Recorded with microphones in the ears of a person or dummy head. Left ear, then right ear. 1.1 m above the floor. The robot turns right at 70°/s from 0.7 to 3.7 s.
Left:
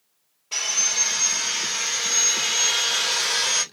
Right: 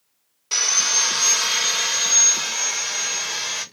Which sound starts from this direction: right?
Sawing, at 0.5 s.